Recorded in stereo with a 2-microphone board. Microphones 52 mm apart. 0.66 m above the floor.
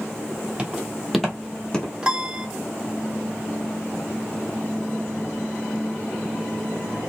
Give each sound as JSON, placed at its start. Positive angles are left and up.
{"t": 0.6, "sound": "footsteps", "side_deg": -20, "distance_m": 1.2}
{"t": 2.0, "sound": "a piano", "side_deg": -20, "distance_m": 0.7}